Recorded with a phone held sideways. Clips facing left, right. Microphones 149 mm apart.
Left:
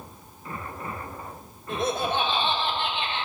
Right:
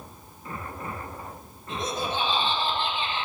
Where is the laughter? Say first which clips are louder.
Left 4 dB; 60° left (ahead or behind), 2 m; by 3.2 s 80° left, 2.5 m.